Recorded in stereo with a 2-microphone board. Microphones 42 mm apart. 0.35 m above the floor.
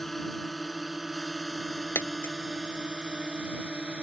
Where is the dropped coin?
75° left (ahead or behind).